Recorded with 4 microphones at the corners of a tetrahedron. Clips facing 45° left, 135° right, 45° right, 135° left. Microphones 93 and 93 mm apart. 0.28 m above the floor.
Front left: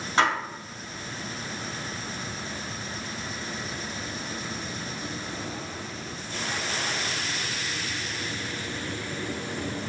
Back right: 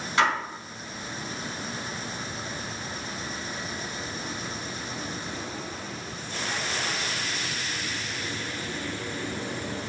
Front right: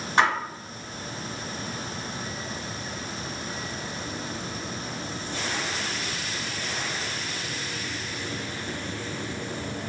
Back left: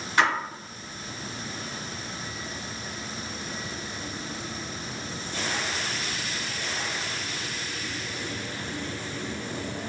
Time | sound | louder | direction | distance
0.2 | a splash | even, front right 2 dB | straight ahead | 1.9 m